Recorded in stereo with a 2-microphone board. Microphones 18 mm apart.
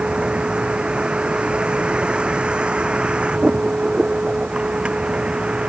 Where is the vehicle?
85° right; by 5.7 s 80° right.